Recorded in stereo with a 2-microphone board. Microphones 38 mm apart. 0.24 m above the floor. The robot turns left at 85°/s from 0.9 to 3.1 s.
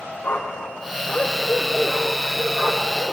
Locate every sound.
0.2 s a dog barking: 60° left, 5.5 m; by 3.1 s 130° right, 5.5 m